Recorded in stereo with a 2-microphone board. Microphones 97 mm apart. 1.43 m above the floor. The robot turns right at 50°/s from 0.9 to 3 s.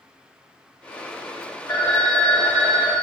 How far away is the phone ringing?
About 3.5 m.